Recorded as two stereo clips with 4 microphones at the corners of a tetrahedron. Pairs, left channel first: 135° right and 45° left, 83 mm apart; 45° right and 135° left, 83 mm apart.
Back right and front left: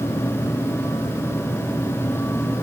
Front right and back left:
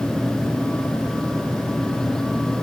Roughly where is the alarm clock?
I don't hear an alarm clock.